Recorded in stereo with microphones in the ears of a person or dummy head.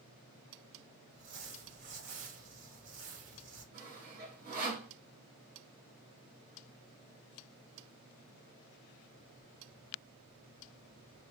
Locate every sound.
1.1 s crumpling: 70° right (ahead or behind), 1.2 m
3.7 s sawing: 40° right (ahead or behind), 1.2 m